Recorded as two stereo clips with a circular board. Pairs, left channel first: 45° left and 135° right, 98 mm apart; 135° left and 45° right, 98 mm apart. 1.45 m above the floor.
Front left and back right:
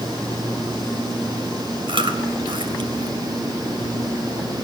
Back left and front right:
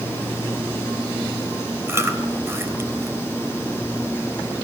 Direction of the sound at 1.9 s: 110° right.